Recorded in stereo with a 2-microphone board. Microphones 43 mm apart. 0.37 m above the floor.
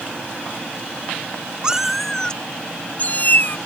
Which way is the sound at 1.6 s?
20° right (ahead or behind).